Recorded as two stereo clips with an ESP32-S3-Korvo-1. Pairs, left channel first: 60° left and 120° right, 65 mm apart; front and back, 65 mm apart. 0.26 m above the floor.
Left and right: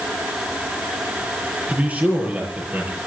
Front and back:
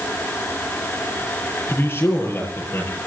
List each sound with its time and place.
1.7 s a man speaking: 55° right, 5.5 m